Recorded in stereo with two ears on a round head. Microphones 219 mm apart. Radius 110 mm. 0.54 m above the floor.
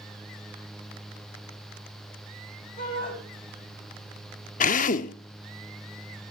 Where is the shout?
35° left (ahead or behind), 3 m.